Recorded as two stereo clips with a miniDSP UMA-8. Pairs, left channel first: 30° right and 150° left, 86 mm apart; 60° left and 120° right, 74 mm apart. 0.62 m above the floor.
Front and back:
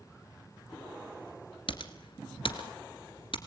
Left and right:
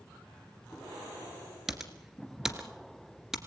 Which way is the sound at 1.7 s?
35° right.